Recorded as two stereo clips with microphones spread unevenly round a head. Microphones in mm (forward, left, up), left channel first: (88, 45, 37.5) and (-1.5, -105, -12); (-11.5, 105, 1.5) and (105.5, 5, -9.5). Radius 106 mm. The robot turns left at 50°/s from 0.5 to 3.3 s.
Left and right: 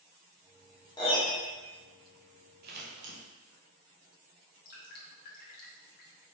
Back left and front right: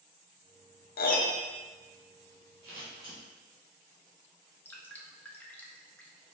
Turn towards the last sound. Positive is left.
turn(degrees=65)